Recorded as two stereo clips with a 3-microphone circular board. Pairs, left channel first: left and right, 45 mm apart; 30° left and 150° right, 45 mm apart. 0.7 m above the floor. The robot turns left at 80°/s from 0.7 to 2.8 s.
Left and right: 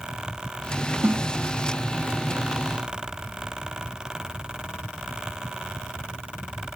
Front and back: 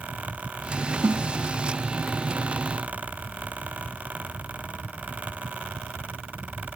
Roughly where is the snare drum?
Behind right.